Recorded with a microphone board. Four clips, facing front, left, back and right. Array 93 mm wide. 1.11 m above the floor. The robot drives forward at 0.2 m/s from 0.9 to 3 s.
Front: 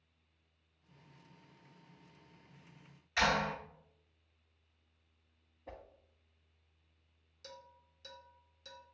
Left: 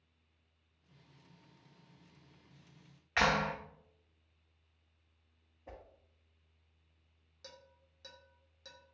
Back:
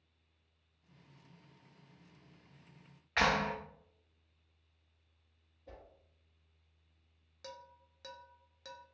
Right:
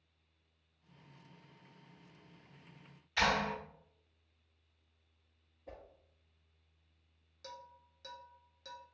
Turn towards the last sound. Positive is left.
turn(degrees=180)